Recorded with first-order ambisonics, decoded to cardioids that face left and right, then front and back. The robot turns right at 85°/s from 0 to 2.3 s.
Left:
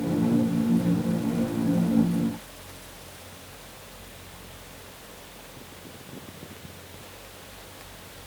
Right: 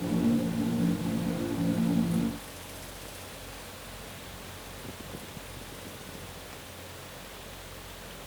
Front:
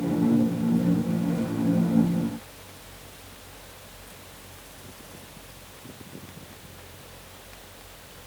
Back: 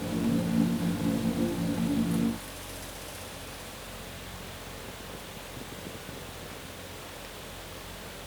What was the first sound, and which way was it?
Only background noise.